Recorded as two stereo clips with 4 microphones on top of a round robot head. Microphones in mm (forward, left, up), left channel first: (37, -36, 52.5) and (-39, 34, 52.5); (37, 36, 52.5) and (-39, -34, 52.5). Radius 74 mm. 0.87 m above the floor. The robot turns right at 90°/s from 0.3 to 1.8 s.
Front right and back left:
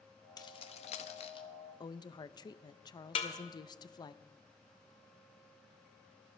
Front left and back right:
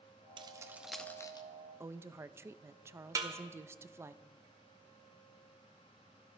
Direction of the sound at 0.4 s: 95° right.